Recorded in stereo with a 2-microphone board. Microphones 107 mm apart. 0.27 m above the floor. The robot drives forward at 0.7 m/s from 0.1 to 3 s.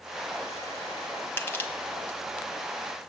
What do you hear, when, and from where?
1.4 s crushing: 20° left (ahead or behind), 1.4 m; by 2.2 s 15° left (ahead or behind), 1.8 m